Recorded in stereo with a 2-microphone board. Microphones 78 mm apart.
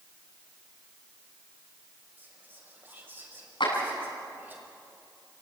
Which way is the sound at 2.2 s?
25° right (ahead or behind).